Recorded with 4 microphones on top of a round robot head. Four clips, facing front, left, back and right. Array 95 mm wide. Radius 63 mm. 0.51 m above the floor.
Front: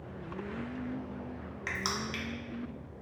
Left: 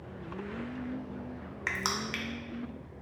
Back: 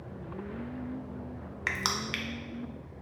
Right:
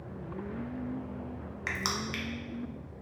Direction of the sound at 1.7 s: 165° left.